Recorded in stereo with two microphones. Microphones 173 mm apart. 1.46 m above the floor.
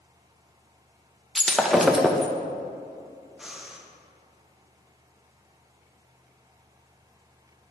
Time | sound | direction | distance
1.4 | breaking glass | centre (ahead or behind) | 0.6 m
3.4 | breathing | 5° right (ahead or behind) | 0.8 m